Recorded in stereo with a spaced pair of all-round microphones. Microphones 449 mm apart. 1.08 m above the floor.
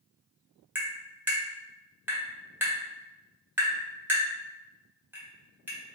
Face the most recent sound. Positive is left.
turn(degrees=-5)  # may be behind; listen again after turning